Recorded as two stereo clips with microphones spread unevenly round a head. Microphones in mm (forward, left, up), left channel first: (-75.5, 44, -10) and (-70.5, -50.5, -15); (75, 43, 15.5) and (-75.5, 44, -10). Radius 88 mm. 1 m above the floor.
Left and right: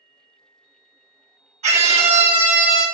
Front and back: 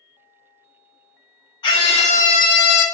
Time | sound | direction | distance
1.6 | a scream | 70° right | 1.6 m